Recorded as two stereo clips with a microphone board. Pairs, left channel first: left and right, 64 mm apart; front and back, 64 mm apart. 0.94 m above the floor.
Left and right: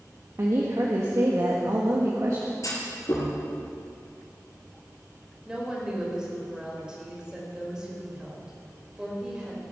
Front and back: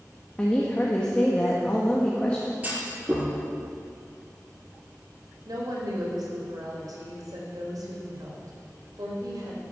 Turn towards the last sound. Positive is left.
turn(degrees=-170)